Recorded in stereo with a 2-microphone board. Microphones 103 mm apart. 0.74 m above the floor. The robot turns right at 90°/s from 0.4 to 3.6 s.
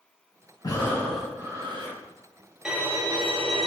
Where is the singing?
I don't hear singing.